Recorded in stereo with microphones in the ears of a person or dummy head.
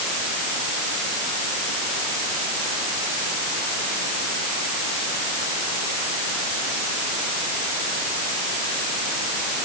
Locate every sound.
Only background noise.